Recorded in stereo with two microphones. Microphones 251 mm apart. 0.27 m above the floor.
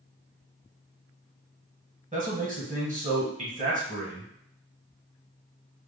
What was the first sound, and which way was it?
A man speaking, 30° right (ahead or behind).